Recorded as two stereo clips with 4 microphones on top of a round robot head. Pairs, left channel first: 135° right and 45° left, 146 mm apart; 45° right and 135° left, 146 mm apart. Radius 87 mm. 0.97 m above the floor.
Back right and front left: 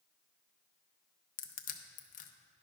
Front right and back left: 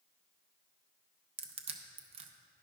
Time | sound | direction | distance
1.4 | crushing | 170° right | 0.6 m